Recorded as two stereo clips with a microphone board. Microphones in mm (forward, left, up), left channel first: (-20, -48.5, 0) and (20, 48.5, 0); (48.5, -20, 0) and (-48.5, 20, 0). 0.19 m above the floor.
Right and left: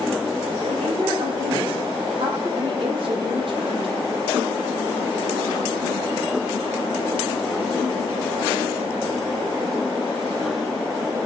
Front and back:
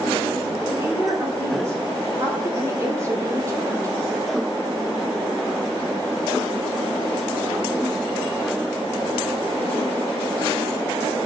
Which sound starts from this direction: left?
A woman speaking, at 0.6 s.